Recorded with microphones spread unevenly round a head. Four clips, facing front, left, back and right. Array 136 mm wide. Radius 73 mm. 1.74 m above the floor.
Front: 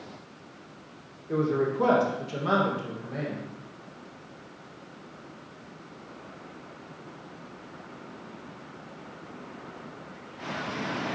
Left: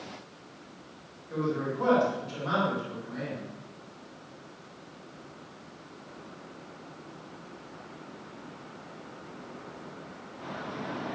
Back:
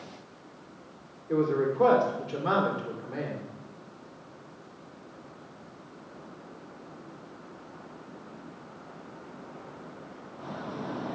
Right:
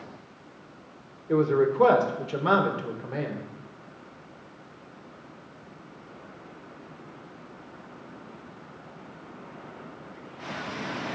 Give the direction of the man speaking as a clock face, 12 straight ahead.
3 o'clock.